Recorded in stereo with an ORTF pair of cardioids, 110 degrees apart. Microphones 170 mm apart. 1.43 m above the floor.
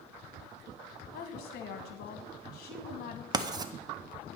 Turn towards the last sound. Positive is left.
turn(degrees=-25)